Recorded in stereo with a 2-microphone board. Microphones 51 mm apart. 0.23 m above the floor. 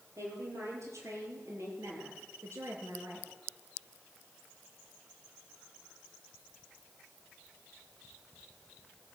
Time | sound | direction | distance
0.2 | a woman speaking | 80° right | 6.5 m